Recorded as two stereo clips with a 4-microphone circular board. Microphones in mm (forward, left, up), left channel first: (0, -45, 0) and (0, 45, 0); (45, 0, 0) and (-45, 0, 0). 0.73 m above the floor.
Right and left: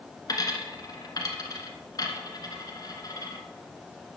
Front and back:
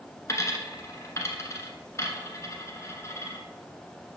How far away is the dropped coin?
About 1.2 m.